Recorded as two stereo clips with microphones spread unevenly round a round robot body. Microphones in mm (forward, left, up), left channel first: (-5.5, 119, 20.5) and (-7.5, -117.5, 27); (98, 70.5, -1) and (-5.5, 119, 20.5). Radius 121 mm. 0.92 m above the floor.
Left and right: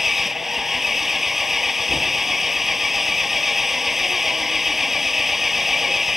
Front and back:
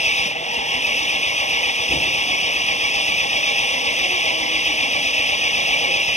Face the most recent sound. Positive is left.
turn(degrees=0)